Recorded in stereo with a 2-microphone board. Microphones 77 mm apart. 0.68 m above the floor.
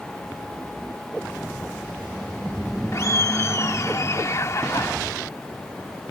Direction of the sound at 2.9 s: 40° left (ahead or behind).